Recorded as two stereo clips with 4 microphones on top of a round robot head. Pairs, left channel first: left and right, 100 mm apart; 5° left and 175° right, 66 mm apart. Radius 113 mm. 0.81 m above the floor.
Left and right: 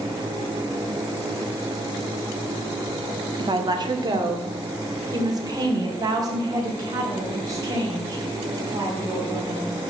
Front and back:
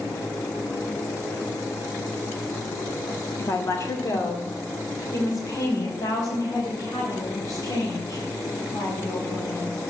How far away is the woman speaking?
About 1.8 m.